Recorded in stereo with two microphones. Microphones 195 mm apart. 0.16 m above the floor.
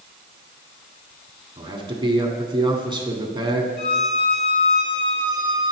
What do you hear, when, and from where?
1.6 s a man speaking: 25° right (ahead or behind), 1.4 m
3.8 s a violin: 55° left (ahead or behind), 1.1 m